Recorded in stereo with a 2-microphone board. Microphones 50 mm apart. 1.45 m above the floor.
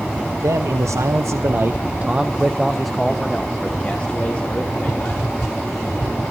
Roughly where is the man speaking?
Right.